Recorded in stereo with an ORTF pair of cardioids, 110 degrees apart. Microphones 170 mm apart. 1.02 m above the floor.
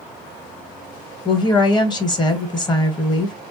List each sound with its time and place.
1.2 s a woman speaking: 25° left, 1.0 m